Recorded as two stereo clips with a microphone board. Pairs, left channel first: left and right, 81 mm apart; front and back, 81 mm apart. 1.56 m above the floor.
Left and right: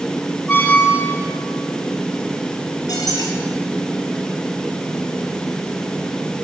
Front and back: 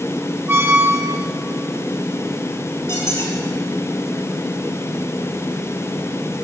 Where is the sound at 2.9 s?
50° left, 4.5 m.